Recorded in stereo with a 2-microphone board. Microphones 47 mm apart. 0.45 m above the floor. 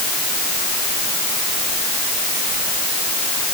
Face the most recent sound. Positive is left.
No sound to turn to.